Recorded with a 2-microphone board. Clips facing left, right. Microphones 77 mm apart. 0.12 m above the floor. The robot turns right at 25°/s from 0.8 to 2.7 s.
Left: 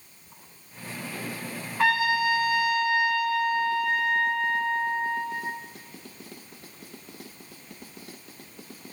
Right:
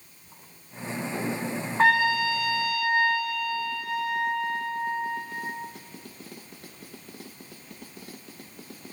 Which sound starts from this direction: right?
A trumpet, at 1.8 s.